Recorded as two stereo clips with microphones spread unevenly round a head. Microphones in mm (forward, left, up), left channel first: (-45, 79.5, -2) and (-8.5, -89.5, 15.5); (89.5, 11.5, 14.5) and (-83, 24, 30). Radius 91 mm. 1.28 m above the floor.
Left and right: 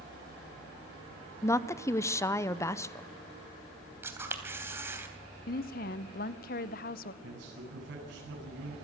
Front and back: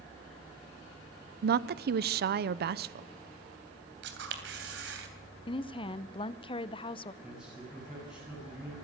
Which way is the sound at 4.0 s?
155° right.